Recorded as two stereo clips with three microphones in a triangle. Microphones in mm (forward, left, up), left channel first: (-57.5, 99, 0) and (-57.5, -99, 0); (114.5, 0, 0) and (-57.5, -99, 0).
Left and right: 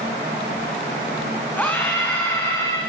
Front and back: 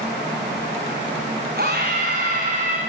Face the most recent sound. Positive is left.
turn(degrees=165)